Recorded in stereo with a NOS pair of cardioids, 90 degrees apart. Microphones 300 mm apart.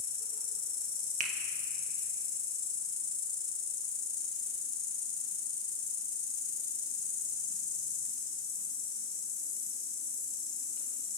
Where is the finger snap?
25° right, 1.9 m.